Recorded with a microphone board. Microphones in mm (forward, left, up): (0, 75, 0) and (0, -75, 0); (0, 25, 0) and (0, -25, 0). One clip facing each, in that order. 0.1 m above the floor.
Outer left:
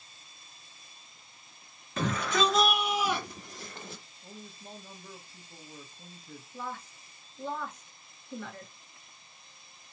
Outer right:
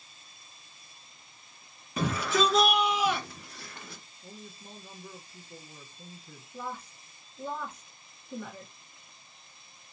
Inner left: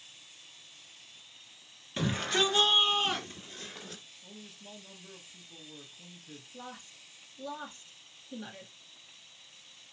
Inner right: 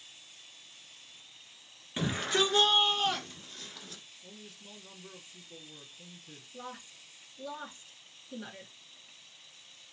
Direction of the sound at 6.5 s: 10° right (ahead or behind).